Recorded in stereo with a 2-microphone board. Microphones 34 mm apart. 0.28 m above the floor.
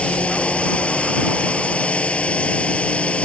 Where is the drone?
35° left (ahead or behind).